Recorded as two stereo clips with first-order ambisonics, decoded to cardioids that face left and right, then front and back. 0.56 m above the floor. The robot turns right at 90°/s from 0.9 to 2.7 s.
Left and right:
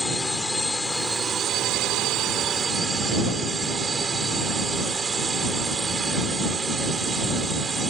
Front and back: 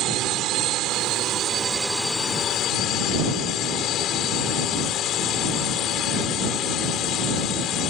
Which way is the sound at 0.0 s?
175° left.